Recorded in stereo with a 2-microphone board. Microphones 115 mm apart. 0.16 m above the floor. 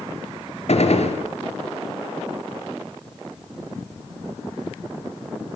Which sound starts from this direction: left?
A gunshot, at 0.7 s.